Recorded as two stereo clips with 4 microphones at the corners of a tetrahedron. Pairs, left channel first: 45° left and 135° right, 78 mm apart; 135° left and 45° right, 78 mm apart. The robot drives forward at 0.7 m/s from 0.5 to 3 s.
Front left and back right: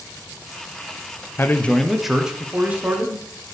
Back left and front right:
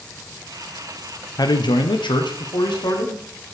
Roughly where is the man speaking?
Left.